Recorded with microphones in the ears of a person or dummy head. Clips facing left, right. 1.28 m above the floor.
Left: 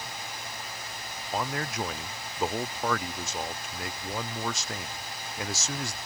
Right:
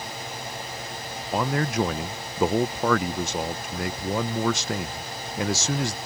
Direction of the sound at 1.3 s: 55° right (ahead or behind).